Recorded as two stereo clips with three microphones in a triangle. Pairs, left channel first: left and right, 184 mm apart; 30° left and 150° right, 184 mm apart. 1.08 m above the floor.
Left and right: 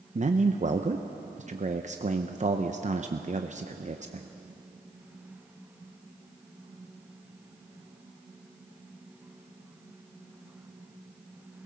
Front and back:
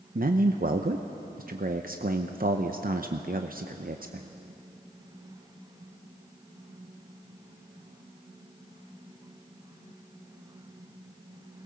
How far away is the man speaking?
About 0.7 m.